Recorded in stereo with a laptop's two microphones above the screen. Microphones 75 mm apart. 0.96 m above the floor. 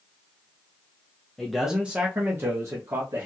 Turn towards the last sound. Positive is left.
turn(degrees=-45)  # may be behind; listen again after turning